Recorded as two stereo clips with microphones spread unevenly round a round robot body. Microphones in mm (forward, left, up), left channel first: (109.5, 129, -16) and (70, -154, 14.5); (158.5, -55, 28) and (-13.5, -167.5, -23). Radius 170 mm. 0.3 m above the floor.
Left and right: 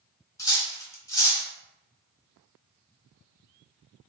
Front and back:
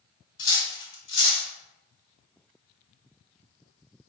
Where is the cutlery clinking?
10° left, 1.1 m.